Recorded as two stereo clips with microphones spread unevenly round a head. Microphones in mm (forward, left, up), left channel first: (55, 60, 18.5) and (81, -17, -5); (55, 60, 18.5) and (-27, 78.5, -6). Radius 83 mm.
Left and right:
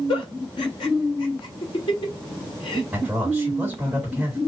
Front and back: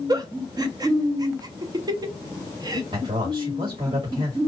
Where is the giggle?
120° left, 0.7 m.